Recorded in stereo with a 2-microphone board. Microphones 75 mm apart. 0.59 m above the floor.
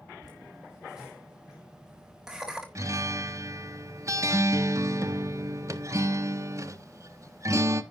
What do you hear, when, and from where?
0.2 s laughter: 10° right (ahead or behind), 2.5 m
2.8 s a guitar: 45° right (ahead or behind), 1.1 m